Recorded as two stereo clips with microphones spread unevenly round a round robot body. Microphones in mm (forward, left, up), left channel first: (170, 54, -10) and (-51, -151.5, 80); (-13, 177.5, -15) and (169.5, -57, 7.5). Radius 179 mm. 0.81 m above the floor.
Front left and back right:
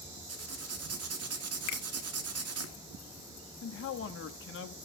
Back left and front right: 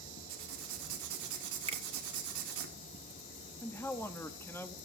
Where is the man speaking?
50° left, 1.5 m.